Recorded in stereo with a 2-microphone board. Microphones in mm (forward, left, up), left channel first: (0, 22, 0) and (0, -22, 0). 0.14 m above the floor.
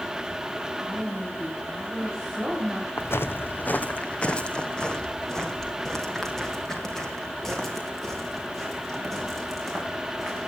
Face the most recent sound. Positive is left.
turn(degrees=0)  # may be behind; listen again after turning